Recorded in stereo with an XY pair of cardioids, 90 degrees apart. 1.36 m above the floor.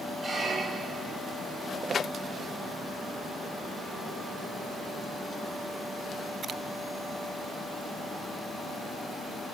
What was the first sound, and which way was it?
A squeak, 35° right.